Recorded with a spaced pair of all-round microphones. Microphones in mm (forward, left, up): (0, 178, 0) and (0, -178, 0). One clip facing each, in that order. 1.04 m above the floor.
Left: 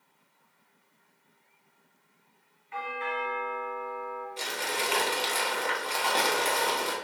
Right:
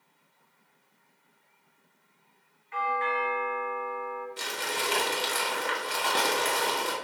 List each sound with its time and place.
2.7 s a doorbell: 40° left (ahead or behind), 1.7 m
4.4 s crumpling: 25° right (ahead or behind), 0.6 m